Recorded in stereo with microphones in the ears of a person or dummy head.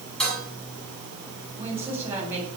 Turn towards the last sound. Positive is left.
turn(degrees=-15)  # may be behind; listen again after turning